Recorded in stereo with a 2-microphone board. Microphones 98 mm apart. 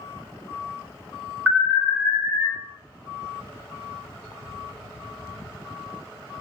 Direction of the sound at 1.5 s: 15° right (ahead or behind).